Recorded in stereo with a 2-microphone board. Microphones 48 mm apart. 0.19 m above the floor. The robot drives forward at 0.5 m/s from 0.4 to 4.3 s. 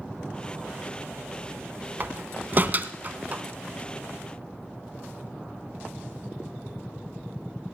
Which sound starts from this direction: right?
A door slam, at 2.0 s.